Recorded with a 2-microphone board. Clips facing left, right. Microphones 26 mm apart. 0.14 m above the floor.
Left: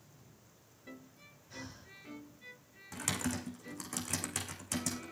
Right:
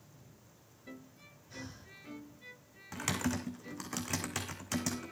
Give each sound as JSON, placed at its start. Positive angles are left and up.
{"t": 1.5, "sound": "breathing", "side_deg": -5, "distance_m": 2.0}
{"t": 2.9, "sound": "typing on a keyboard", "side_deg": -20, "distance_m": 2.5}